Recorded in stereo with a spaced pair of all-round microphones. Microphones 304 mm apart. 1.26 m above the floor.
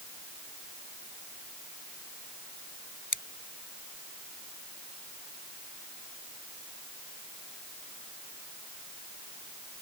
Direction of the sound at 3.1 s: 85° left.